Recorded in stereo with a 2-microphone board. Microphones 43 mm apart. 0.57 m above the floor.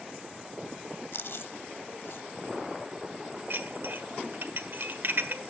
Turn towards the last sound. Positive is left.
turn(degrees=-55)  # may be behind; listen again after turning